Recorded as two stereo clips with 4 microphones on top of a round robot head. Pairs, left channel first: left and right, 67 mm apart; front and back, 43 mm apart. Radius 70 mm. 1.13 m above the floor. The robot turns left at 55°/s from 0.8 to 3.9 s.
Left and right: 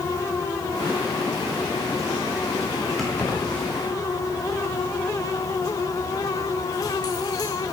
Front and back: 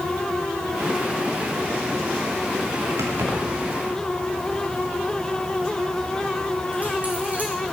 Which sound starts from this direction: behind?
Keys jangling, at 3.0 s.